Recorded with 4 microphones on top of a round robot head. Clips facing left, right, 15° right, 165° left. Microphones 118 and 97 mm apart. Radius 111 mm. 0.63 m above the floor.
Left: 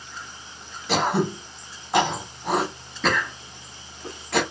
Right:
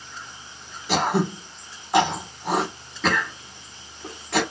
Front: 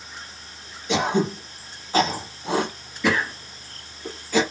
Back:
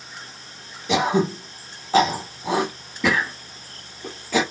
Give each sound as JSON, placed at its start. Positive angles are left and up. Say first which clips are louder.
{"t": 0.9, "sound": "throat clearing", "louder": "even, back 2 dB", "azimuth_deg": 180, "distance_m": 0.8}